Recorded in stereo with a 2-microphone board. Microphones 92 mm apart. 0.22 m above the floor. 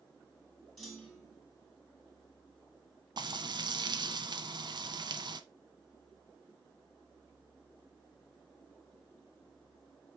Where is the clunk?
5° left (ahead or behind), 2 m.